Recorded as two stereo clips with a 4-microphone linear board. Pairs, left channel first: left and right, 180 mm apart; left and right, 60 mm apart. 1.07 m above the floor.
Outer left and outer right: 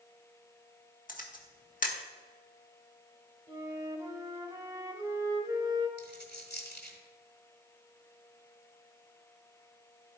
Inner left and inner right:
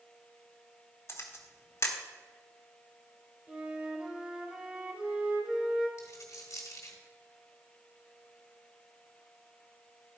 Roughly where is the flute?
Right.